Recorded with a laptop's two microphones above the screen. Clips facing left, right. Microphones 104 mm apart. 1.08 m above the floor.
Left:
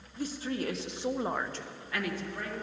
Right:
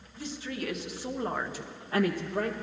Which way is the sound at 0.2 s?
45° left (ahead or behind).